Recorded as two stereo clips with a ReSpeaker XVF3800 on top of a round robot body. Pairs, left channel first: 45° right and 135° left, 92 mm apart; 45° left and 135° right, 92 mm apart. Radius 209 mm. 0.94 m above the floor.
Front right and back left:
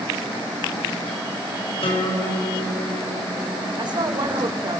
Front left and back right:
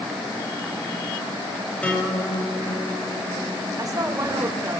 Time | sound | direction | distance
1.8 | a guitar | 30° right | 8 m
3.8 | a woman speaking | 170° left | 5.5 m